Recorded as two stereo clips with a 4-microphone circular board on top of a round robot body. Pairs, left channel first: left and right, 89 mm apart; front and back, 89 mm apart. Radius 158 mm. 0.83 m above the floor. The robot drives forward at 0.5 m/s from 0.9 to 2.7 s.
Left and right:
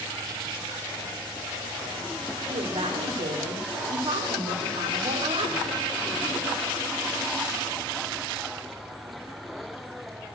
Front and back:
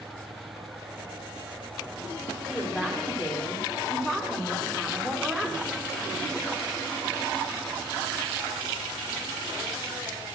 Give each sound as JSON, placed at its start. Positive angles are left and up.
{"t": 2.5, "sound": "a woman speaking", "azimuth_deg": -90, "distance_m": 2.0}